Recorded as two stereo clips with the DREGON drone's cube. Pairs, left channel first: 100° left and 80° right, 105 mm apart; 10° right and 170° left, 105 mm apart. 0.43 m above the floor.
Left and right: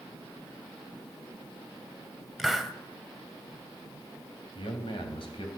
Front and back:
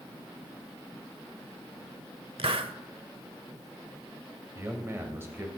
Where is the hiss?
170° right, 0.7 m.